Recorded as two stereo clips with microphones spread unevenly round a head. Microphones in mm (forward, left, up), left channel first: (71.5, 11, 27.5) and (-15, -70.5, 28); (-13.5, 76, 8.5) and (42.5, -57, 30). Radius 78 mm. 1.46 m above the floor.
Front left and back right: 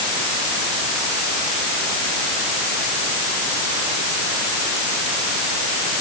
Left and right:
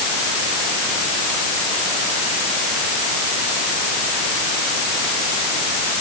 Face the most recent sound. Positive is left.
No sound to turn to.